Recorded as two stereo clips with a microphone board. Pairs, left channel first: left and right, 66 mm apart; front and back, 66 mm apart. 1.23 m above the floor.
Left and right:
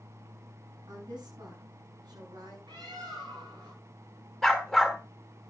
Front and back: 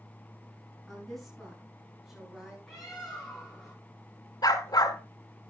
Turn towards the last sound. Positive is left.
turn(degrees=0)